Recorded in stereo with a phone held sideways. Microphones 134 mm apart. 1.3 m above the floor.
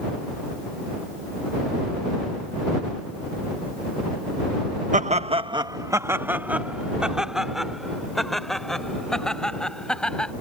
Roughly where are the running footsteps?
I don't hear running footsteps.